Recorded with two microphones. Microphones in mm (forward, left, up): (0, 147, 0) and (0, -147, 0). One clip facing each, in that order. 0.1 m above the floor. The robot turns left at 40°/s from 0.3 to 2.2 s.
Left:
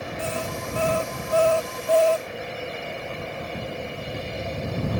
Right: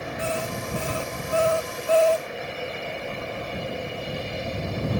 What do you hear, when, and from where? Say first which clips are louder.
0.2 s an alarm clock: right 1 dB; 110° right; by 2.3 s 175° left